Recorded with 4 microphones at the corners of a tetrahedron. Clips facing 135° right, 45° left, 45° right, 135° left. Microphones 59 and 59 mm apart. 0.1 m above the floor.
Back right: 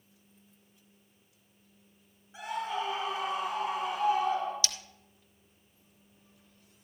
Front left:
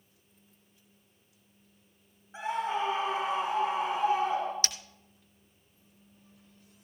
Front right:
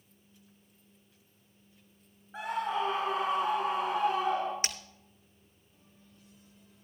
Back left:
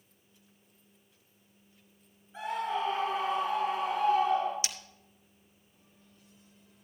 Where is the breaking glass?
5° right, 1.0 m.